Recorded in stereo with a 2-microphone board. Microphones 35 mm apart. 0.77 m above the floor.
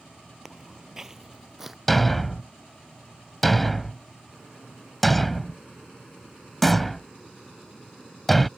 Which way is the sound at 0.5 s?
10° right (ahead or behind).